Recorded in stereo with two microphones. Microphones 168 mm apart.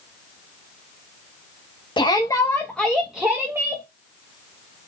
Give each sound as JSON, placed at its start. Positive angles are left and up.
{"t": 2.0, "sound": "a shout", "side_deg": 30, "distance_m": 1.4}